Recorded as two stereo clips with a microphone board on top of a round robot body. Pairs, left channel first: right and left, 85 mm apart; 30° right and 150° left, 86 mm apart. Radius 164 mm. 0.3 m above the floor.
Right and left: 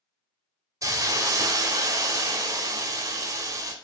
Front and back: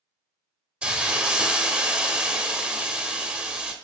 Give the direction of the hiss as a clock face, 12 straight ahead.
9 o'clock.